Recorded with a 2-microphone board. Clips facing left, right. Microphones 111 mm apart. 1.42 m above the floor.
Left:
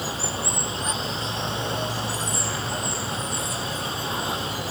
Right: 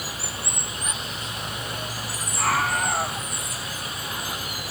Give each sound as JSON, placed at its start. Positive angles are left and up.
{"t": 0.0, "sound": "running water", "side_deg": 25}
{"t": 2.4, "sound": "a scream", "side_deg": -75}